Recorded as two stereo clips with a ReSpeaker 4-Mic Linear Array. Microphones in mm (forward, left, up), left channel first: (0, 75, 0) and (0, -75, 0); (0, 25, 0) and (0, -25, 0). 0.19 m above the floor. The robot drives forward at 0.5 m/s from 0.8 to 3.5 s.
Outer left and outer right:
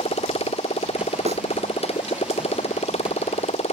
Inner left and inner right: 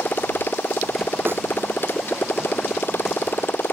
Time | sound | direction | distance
0.0 | a motorcycle | 40° left (ahead or behind) | ?
1.3 | a snare drum | 45° right (ahead or behind) | ?